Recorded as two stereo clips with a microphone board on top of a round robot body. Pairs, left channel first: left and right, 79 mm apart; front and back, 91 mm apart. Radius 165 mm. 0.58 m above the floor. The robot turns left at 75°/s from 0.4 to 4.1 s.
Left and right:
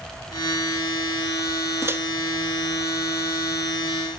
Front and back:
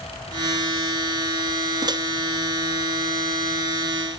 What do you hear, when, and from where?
1.8 s a microwave: 140° right, 0.9 m; by 2.0 s 155° right, 0.9 m